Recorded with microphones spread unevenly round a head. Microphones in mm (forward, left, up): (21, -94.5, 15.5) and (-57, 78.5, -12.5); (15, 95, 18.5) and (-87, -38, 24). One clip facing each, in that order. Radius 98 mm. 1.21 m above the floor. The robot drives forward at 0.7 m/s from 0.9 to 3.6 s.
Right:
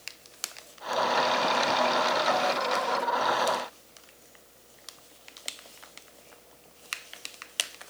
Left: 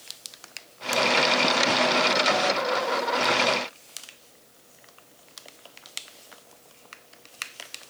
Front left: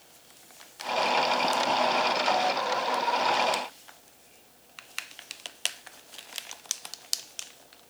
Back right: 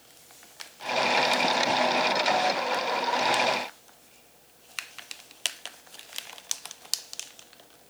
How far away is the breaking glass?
I don't hear breaking glass.